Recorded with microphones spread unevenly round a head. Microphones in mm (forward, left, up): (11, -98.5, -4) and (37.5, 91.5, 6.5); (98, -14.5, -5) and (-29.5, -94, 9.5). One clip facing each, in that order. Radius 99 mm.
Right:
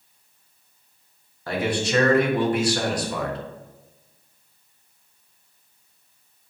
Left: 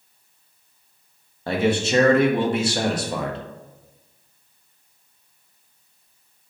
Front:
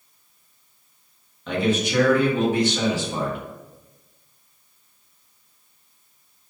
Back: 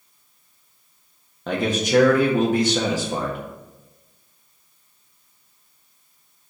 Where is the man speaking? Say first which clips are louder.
Left 4 dB, back 1 dB; 150° left, 1.3 m.